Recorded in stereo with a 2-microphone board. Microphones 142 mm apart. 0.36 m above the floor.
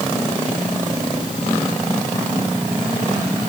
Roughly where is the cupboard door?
I don't hear a cupboard door.